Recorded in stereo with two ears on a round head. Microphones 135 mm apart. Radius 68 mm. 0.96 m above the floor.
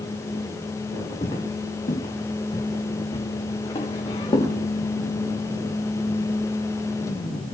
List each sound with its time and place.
1.2 s footsteps: 45° left (ahead or behind), 3 m; by 4.5 s 25° left (ahead or behind), 6 m